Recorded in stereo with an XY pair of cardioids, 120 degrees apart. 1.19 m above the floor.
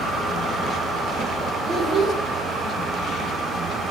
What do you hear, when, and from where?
1.6 s a child speaking: 35° right, 1.1 m